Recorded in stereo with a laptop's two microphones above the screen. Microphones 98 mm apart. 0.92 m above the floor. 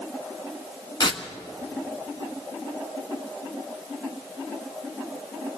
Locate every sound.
1.0 s tearing paper: 55° left (ahead or behind), 1.5 m